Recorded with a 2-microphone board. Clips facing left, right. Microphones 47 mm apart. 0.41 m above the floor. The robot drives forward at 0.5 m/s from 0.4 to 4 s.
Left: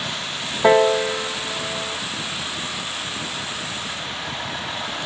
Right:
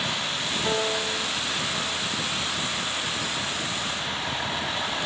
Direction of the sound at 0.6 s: 75° left (ahead or behind).